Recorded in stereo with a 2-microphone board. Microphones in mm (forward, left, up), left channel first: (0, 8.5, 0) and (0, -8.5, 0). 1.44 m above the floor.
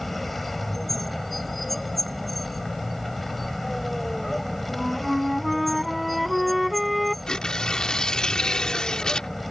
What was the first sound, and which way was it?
A vehicle, 10° left (ahead or behind).